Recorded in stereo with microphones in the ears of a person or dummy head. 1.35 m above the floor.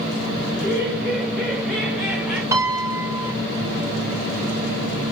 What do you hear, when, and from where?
0.5 s laughter: 10° left (ahead or behind), 5 m; by 2.4 s centre (ahead or behind), 4 m
2.5 s a piano: 15° right (ahead or behind), 3.5 m